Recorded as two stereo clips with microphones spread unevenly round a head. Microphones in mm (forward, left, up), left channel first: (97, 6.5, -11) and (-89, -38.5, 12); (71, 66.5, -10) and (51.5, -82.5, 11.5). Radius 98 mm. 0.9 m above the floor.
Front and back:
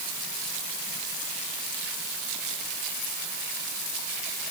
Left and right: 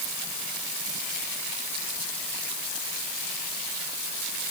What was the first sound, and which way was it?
Only background noise.